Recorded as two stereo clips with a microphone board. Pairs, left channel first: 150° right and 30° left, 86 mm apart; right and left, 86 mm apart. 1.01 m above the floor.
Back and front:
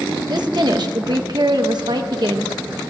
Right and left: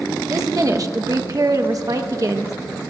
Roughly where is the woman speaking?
Ahead left.